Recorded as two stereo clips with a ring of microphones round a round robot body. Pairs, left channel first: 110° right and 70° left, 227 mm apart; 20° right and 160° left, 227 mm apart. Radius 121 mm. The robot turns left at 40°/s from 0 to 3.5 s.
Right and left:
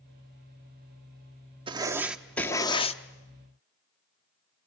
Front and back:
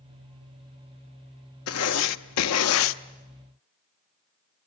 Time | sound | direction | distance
1.7 | writing | straight ahead | 0.6 m